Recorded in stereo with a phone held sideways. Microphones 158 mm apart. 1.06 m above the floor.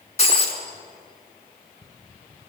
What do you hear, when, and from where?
0.2 s breaking glass: 40° left (ahead or behind), 3.5 m